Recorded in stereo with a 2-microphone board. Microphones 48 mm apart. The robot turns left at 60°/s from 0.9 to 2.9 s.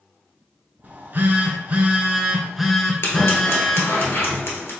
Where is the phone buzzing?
70° right, 0.7 m; by 4.0 s 170° left, 0.7 m.